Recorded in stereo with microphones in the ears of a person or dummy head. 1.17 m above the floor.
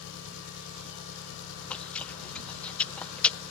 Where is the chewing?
5° left (ahead or behind).